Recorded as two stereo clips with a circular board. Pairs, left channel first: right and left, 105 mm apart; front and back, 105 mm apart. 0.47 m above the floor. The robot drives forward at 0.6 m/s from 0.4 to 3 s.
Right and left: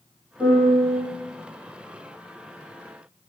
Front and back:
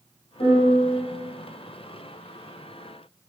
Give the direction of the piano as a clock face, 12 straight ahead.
11 o'clock.